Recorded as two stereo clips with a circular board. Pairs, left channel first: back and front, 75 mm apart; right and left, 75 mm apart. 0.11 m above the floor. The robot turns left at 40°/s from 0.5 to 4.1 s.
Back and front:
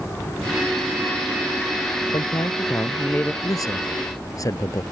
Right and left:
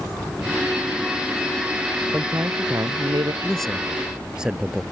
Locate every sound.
2.1 s a man speaking: 155° left; by 3.3 s 105° left
3.4 s a man speaking: 165° right; by 4.8 s 165° left